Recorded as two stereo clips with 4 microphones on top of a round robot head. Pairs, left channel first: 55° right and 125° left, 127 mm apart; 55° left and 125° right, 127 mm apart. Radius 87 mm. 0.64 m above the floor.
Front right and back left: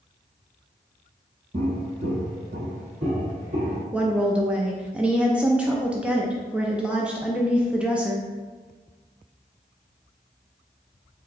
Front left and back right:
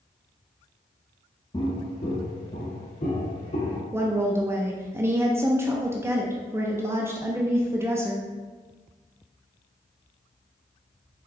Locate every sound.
1.5 s footsteps: 100° left, 0.7 m; by 3.8 s 85° left, 1.9 m
3.9 s a woman speaking: 165° right, 0.5 m